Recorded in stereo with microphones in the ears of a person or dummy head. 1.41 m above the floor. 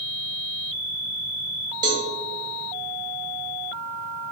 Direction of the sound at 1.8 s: 25° right (ahead or behind).